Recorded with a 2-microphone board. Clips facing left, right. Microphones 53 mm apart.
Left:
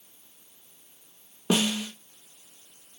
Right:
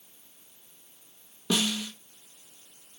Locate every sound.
1.5 s a snare drum: 35° left (ahead or behind), 1.1 m